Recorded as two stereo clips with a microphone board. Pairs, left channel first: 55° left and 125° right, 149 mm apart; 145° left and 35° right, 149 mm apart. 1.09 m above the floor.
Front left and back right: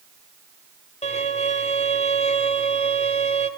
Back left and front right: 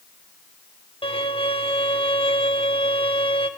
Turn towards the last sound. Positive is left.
turn(degrees=95)